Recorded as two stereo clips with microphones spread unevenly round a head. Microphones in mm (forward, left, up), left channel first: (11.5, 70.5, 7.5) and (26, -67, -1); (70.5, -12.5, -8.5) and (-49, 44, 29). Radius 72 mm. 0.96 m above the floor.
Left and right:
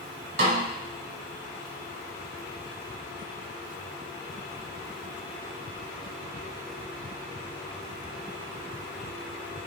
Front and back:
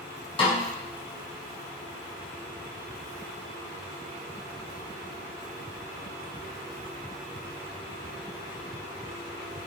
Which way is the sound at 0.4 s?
85° right.